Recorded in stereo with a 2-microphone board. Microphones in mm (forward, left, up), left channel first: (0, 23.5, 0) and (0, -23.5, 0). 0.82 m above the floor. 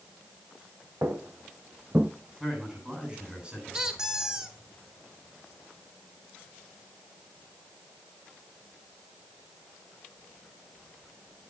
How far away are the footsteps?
About 1.8 m.